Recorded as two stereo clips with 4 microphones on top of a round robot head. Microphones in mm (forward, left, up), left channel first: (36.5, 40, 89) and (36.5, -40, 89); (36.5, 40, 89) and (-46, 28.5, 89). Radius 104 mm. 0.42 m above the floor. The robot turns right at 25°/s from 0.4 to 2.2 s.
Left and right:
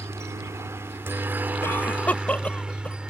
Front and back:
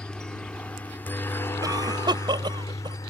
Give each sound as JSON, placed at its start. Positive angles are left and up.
{"t": 0.0, "sound": "a helicopter", "azimuth_deg": -65}
{"t": 1.6, "sound": "a cough", "azimuth_deg": 150}